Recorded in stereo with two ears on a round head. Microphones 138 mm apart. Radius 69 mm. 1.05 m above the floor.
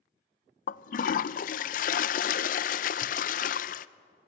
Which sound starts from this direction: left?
A toilet flushing, at 0.7 s.